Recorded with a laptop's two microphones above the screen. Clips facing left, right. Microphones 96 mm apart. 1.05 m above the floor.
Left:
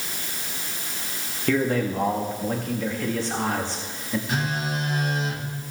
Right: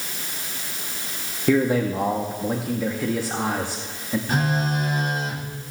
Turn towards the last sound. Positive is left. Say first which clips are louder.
# right 7 dB
turn(degrees=-45)  # may be behind; listen again after turning